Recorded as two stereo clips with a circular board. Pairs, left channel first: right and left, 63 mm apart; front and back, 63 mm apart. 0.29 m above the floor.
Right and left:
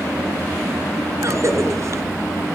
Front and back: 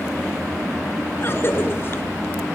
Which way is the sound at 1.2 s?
55° left.